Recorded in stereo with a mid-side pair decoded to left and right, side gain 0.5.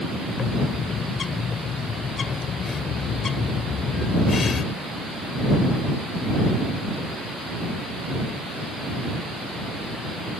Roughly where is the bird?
Ahead left.